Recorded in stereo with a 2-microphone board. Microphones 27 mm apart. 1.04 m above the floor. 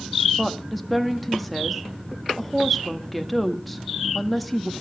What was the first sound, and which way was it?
A woman speaking, 5° left (ahead or behind).